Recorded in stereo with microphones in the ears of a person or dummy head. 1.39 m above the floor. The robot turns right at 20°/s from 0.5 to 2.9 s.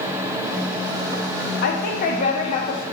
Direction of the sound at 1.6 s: 40° left (ahead or behind).